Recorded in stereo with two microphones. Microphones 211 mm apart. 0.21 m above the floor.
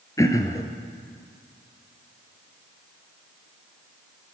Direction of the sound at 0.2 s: 15° left (ahead or behind).